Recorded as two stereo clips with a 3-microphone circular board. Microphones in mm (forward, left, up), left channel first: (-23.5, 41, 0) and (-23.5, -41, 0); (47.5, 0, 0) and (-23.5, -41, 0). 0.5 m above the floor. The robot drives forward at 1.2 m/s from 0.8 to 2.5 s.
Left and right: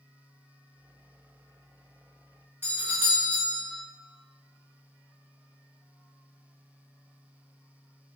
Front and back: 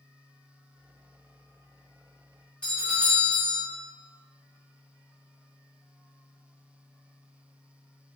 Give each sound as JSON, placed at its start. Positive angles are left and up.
{"t": 2.6, "sound": "a doorbell", "azimuth_deg": -45, "distance_m": 1.4}